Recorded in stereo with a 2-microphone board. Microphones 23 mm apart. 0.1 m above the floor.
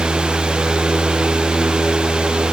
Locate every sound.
Only background noise.